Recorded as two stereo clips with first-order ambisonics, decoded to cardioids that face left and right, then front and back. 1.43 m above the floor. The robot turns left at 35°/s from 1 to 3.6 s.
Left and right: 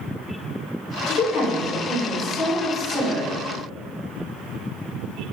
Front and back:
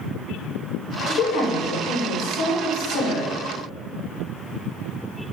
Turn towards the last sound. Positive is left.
turn(degrees=-45)